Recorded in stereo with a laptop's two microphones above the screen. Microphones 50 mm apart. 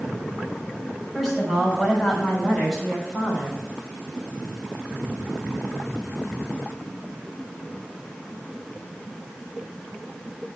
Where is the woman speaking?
5° right (ahead or behind), 6.5 m; by 3.6 s 20° right (ahead or behind), 6 m.